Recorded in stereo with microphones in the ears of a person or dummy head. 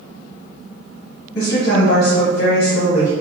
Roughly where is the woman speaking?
Left.